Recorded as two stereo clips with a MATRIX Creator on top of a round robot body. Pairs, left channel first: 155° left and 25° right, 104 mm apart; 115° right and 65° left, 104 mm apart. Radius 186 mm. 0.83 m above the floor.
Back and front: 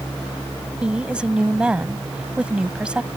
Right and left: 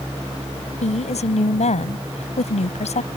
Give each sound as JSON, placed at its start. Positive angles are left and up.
{"t": 0.8, "sound": "a woman speaking", "azimuth_deg": -105}